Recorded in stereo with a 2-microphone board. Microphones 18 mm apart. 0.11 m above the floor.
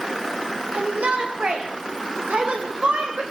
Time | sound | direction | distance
0.7 | a shout | 80° right | 8 m